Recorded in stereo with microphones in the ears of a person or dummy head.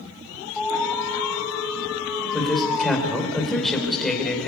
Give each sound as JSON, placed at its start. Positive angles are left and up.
{"t": 0.6, "sound": "an alarm", "side_deg": 0, "distance_m": 6.5}
{"t": 2.3, "sound": "a man speaking", "side_deg": 0, "distance_m": 4.0}